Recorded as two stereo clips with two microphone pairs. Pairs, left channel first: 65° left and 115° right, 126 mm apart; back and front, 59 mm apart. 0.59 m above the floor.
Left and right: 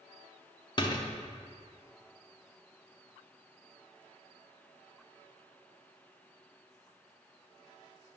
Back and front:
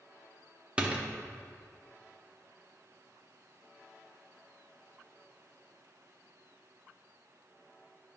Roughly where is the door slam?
Ahead left.